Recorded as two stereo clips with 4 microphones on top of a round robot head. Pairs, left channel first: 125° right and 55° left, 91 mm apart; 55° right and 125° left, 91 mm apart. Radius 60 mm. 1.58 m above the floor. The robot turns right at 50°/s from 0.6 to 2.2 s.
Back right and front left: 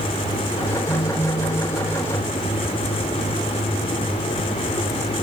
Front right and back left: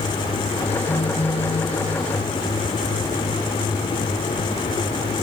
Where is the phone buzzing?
90° right, 5 m; by 1.8 s 45° right, 5 m.